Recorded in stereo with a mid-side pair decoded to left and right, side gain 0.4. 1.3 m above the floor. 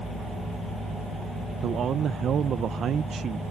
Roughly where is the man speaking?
Ahead right.